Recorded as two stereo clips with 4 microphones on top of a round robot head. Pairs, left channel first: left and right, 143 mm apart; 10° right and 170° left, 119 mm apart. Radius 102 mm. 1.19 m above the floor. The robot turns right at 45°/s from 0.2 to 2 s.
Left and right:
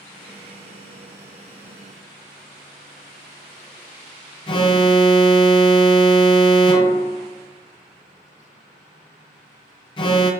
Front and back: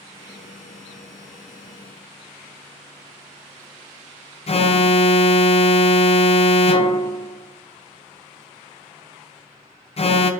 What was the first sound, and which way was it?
An alarm, 30° left.